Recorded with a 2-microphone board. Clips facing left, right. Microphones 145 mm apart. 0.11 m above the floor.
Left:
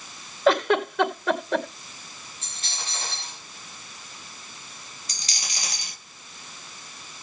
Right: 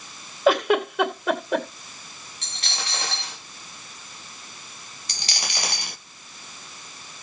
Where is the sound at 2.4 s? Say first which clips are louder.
Right 5 dB; 75° right (ahead or behind), 4 m.